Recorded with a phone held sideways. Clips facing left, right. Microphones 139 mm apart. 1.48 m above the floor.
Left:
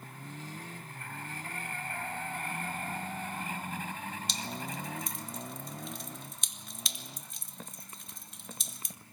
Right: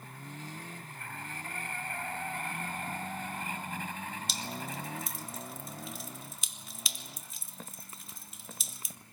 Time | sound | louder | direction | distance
4.3 | dripping | even | centre (ahead or behind) | 2 m